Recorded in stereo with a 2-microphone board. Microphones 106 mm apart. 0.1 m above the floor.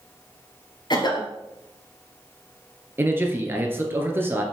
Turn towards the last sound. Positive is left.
turn(degrees=-20)  # may be behind; listen again after turning